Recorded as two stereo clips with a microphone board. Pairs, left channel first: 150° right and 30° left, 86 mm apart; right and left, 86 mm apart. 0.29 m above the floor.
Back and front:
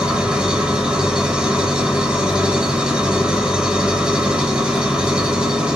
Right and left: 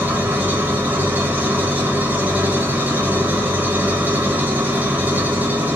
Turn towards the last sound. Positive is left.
turn(degrees=90)